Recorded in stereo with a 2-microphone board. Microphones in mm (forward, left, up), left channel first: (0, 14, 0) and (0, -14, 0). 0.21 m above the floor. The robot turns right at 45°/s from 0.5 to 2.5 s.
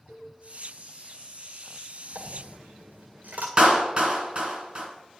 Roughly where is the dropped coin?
Right.